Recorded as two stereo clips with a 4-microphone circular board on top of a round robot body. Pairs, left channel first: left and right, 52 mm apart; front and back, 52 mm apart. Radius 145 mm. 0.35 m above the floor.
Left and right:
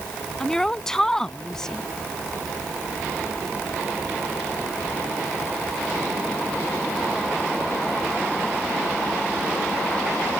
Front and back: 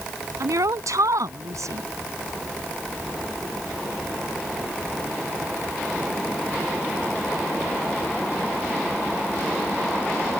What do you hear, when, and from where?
0.4 s a woman speaking: 175° left